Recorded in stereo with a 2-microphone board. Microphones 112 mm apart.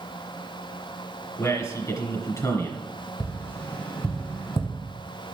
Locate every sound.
1.4 s a man speaking: 30° left (ahead or behind), 2.5 m
3.2 s tapping: 20° left (ahead or behind), 1.5 m